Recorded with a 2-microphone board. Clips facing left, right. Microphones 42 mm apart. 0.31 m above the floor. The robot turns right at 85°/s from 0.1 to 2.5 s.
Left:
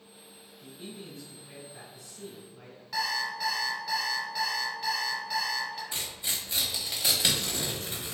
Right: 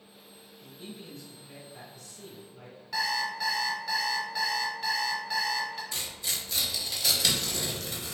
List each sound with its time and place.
0.6 s a man speaking: 5° left (ahead or behind), 1.3 m; by 2.8 s centre (ahead or behind), 1.3 m
2.9 s an alarm clock: centre (ahead or behind), 1.0 m
5.9 s tearing paper: 25° left (ahead or behind), 0.6 m